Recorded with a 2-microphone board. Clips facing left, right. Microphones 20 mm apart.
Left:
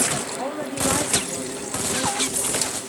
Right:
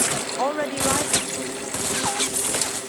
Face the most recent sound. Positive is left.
turn(degrees=50)  # may be behind; listen again after turning